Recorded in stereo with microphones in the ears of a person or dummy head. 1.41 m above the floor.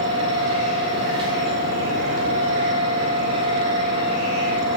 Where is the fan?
25° right (ahead or behind), 0.7 m.